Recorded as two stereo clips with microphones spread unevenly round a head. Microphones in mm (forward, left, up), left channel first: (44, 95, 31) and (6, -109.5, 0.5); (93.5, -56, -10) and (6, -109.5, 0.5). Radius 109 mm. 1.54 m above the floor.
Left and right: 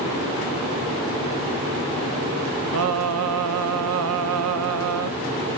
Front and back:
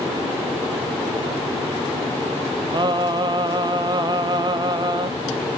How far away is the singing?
About 1.0 m.